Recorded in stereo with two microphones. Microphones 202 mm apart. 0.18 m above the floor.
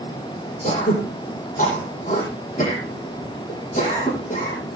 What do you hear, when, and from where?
0.6 s throat clearing: 40° left (ahead or behind), 8.5 m